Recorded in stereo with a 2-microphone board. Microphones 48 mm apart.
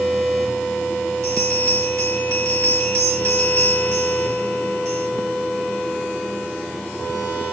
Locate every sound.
1.2 s a bell: 85° right, 1.9 m